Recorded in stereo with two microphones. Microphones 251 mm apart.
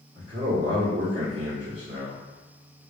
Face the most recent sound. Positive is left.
turn(degrees=-15)  # may be behind; listen again after turning